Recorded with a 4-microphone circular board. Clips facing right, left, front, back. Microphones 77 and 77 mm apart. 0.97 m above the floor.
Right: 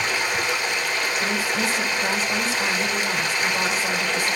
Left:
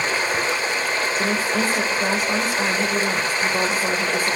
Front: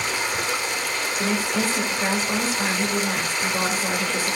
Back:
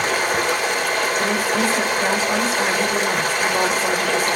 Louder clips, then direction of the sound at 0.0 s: Left 2 dB, back 6 dB; 145° left.